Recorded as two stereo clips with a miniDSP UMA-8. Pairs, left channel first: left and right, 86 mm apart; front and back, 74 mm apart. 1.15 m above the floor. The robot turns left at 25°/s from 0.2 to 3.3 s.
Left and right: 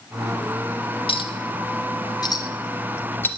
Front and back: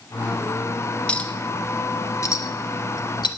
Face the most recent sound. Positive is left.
turn(degrees=20)